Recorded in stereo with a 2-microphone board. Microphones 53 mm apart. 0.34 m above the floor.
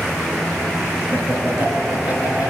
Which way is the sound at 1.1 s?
40° right (ahead or behind).